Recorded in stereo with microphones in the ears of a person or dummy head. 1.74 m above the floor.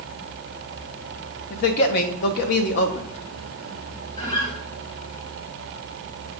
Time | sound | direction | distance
1.5 | a man speaking | 50° left (ahead or behind) | 0.7 m
4.2 | a guitar | 30° left (ahead or behind) | 1.1 m